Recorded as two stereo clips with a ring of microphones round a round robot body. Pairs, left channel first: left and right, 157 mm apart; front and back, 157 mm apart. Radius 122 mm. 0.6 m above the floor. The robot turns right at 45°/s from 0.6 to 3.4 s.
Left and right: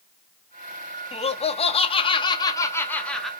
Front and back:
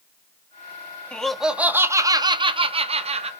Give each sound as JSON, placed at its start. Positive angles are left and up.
{"t": 1.1, "sound": "laughter", "azimuth_deg": 80, "distance_m": 0.7}